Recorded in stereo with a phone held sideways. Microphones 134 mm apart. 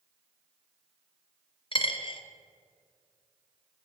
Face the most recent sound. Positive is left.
turn(degrees=40)  # may be behind; listen again after turning